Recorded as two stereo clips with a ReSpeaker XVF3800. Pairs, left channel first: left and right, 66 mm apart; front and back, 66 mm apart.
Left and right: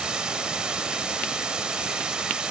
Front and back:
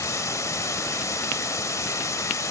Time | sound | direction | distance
0.0 | running water | 15° right | 0.9 m